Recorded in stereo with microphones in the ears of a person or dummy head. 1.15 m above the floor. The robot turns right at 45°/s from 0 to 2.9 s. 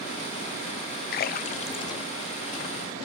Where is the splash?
50° left (ahead or behind), 0.6 m; by 2.0 s 20° left (ahead or behind), 0.6 m.